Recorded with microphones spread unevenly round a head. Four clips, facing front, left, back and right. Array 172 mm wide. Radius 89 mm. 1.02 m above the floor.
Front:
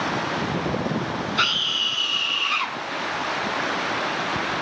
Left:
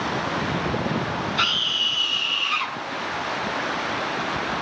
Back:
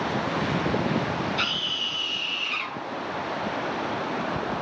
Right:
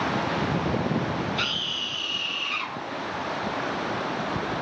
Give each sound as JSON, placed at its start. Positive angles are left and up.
{"t": 1.4, "sound": "a scream", "azimuth_deg": 30, "distance_m": 8.5}